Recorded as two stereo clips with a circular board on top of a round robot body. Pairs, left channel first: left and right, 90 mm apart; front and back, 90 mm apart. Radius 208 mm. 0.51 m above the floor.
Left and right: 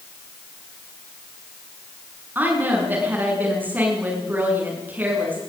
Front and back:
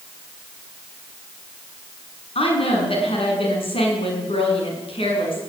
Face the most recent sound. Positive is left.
turn(degrees=-20)